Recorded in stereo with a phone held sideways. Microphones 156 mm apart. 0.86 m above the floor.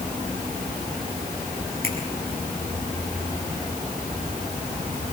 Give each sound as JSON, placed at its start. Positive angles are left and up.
{"t": 1.8, "sound": "a finger snap", "side_deg": -80, "distance_m": 6.5}